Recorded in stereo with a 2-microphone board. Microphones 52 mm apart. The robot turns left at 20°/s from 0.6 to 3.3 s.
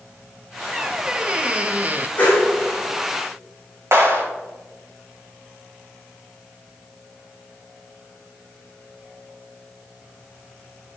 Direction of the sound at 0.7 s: 10° right (ahead or behind).